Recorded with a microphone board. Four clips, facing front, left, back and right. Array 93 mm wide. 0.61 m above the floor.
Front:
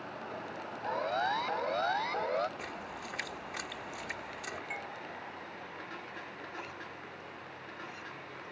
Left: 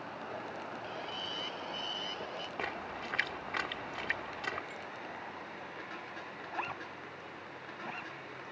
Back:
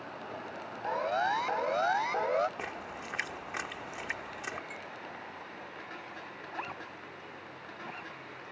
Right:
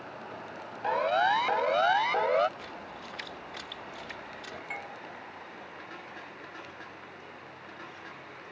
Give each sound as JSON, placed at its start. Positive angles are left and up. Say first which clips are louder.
{"t": 0.8, "sound": "a siren", "louder": "right 16 dB, back 2 dB", "azimuth_deg": -100}
{"t": 2.6, "sound": "a splash", "louder": "left 3 dB, back 2 dB", "azimuth_deg": 120}
{"t": 4.7, "sound": "a doorbell", "louder": "right 5 dB, front 3 dB", "azimuth_deg": -60}
{"t": 6.5, "sound": "a zipper", "louder": "left 5 dB, back 3 dB", "azimuth_deg": 125}